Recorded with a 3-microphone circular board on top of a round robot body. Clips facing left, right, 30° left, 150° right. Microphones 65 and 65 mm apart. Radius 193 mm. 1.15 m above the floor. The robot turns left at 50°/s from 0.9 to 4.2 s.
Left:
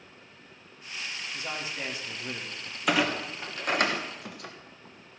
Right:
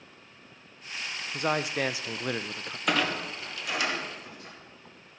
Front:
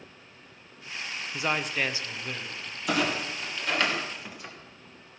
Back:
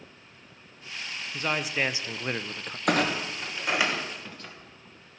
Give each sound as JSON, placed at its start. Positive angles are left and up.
{"t": 1.3, "sound": "a man speaking", "azimuth_deg": -45, "distance_m": 0.6}
{"t": 2.9, "sound": "a clunk", "azimuth_deg": 180, "distance_m": 1.6}